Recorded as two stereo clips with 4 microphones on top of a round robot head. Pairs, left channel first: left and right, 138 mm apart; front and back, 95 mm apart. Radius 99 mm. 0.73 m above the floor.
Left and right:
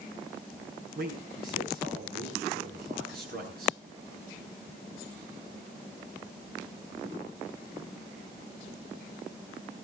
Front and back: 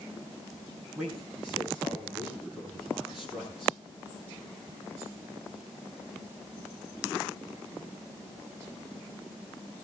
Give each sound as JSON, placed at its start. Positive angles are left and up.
{"t": 0.9, "sound": "a man speaking", "azimuth_deg": -95, "distance_m": 8.5}